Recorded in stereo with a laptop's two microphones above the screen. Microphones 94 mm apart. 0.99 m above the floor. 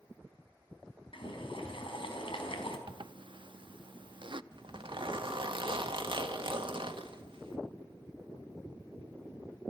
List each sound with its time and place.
1.1 s boiling: 70° left (ahead or behind), 4.5 m
2.9 s a zipper: 60° right (ahead or behind), 0.7 m
4.5 s a zipper: 60° right (ahead or behind), 1.8 m